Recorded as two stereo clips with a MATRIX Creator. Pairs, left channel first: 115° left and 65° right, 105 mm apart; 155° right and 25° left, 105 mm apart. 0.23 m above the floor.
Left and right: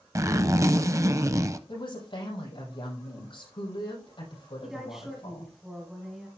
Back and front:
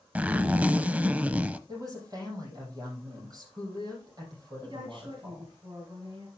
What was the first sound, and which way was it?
A zipper, 40° right.